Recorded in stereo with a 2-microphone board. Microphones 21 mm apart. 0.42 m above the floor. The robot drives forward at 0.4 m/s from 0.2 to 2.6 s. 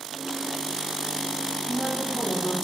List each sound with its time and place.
1.6 s a woman speaking: 50° left (ahead or behind), 4.5 m